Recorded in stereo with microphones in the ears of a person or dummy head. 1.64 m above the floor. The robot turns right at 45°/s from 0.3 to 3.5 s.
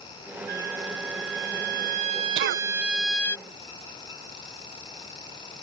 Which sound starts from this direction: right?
A cough, at 2.4 s.